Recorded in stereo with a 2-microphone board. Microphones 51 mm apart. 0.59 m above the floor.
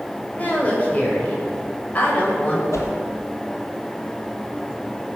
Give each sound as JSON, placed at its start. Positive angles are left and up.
{"t": 0.3, "sound": "a woman speaking", "side_deg": 35, "distance_m": 3.5}
{"t": 2.7, "sound": "a whoosh", "side_deg": 80, "distance_m": 2.5}